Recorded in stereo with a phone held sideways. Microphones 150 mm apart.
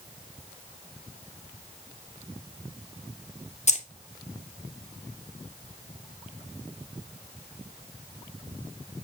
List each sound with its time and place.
3.7 s keys jangling: 45° left (ahead or behind), 0.5 m